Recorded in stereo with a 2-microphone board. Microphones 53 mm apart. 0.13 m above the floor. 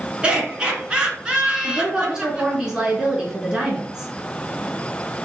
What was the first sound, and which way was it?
Laughter, 20° right (ahead or behind).